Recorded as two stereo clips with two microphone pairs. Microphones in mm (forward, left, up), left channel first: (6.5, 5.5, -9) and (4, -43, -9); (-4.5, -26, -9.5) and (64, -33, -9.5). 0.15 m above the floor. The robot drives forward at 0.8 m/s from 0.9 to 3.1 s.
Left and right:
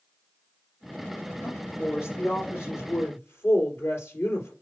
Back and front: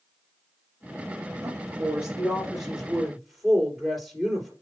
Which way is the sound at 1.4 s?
55° left.